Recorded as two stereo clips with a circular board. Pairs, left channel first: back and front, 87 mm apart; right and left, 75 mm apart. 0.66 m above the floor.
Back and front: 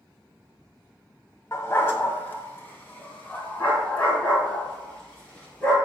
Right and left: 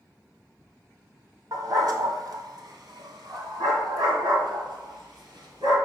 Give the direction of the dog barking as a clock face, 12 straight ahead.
8 o'clock.